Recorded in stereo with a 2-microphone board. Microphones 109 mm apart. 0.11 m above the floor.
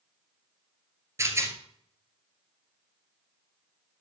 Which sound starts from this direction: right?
A rattle, at 1.2 s.